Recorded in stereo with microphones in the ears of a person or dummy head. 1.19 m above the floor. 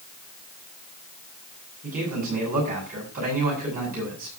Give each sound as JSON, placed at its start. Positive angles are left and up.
{"t": 1.8, "sound": "a man speaking", "side_deg": -45, "distance_m": 7.0}